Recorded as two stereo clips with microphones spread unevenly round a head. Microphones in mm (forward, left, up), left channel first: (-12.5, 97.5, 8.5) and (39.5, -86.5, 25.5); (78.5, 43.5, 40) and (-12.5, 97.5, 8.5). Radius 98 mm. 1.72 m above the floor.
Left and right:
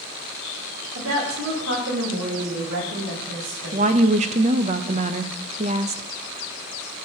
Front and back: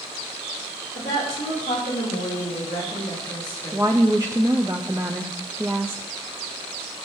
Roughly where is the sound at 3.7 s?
Behind right.